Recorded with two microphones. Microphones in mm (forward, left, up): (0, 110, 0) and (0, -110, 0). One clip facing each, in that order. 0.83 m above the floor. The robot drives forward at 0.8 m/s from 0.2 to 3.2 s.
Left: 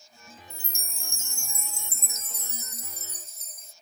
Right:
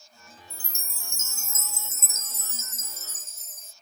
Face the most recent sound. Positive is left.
turn(degrees=0)  # may be behind; listen again after turning